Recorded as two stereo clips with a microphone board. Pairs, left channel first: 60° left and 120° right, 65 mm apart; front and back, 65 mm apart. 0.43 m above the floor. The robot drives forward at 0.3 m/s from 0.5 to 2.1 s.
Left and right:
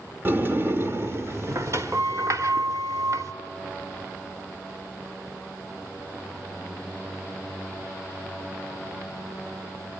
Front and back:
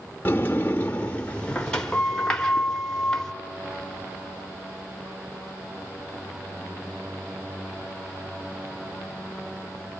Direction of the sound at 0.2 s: 60° right.